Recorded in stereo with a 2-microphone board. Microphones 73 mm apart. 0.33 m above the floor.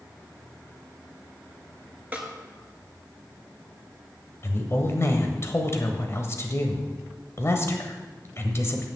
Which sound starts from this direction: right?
A snare drum, at 2.1 s.